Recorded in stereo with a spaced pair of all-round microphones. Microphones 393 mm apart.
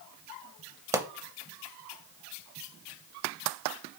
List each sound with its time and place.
0.9 s a pop: 5° right (ahead or behind), 0.5 m